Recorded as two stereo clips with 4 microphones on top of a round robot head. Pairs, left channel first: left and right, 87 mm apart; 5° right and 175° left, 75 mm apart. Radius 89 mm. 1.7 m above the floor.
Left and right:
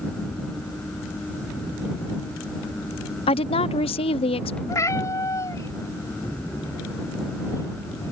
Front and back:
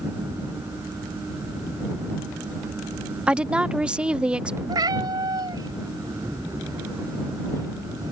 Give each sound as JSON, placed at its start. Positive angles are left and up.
{"t": 3.3, "sound": "a woman speaking", "azimuth_deg": 95}
{"t": 4.7, "sound": "a cat meowing", "azimuth_deg": 145}